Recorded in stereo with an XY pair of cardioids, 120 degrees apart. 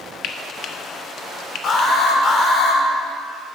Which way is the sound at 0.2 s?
50° left.